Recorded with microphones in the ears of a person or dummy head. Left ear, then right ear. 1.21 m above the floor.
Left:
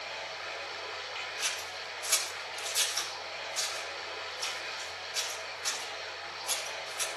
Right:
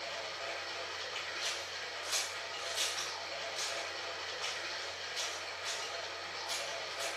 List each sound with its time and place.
0.0 s running water: 10° left (ahead or behind), 5.5 m
1.4 s scissors: 70° left (ahead or behind), 7.5 m